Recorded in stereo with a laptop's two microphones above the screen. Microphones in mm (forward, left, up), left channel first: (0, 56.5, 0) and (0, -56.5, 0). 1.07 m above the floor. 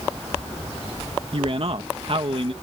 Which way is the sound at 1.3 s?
50° right (ahead or behind).